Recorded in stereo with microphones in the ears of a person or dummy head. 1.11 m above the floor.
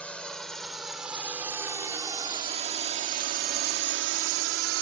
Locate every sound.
0.0 s a drone: centre (ahead or behind); by 4.8 s 70° right (ahead or behind)